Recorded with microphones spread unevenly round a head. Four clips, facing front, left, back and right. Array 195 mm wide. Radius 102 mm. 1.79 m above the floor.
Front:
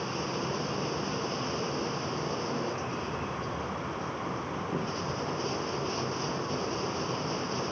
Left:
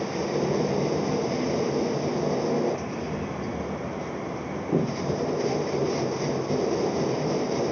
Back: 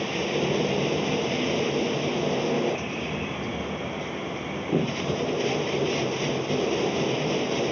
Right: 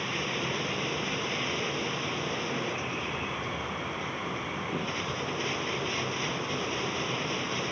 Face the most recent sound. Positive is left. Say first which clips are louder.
# left 7 dB, back 7 dB
turn(degrees=130)